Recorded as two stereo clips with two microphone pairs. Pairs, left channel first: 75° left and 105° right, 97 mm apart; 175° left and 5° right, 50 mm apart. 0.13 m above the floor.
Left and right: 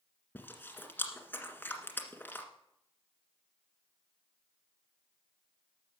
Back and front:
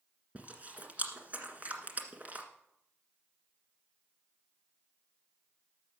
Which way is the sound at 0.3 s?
20° left.